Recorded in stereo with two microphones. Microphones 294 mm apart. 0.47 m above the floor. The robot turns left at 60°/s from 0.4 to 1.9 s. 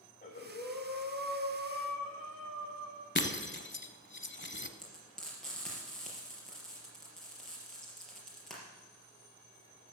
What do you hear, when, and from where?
0.2 s breathing: 150° left, 6 m; by 3.0 s 60° left, 6 m
3.1 s breaking glass: 40° left (ahead or behind), 0.9 m
4.8 s frying: centre (ahead or behind), 4 m